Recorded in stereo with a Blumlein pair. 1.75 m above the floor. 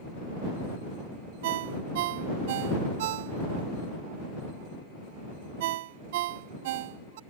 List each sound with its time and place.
1.4 s a ringtone: 50° right